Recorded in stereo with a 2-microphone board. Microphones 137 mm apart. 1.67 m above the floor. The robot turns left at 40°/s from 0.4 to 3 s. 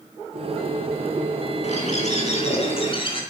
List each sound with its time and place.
1.6 s a bird: 105° left, 1.7 m; by 3.2 s 50° left, 1.7 m